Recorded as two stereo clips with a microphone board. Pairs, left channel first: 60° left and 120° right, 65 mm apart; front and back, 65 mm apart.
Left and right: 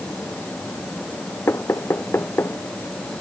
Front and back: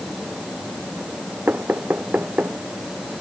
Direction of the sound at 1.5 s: 115° left.